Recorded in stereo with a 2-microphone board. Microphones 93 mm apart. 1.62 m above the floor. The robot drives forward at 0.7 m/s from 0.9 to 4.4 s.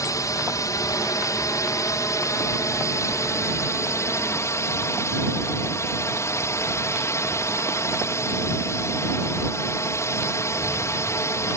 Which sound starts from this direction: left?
A drone, at 0.0 s.